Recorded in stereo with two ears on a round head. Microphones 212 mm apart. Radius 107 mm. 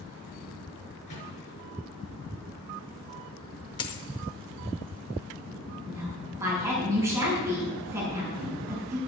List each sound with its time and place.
1.1 s a microwave: 30° left (ahead or behind), 6.5 m
3.8 s a dropped coin: 20° left (ahead or behind), 0.7 m
5.9 s a woman speaking: 10° right (ahead or behind), 5 m